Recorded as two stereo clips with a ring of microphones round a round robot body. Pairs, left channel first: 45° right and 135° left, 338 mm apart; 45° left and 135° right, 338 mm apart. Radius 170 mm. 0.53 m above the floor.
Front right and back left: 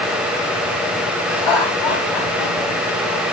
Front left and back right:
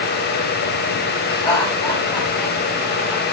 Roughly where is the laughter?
Ahead right.